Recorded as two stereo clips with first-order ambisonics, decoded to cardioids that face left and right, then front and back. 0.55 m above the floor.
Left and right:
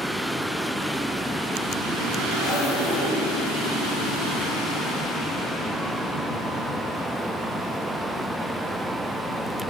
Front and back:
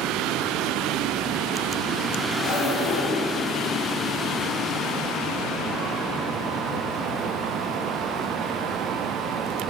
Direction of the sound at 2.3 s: 25° left.